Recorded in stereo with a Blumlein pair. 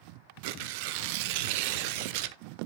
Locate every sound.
0.4 s tearing paper: 45° right, 0.6 m